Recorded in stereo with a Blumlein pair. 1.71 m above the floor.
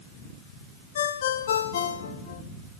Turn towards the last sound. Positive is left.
turn(degrees=60)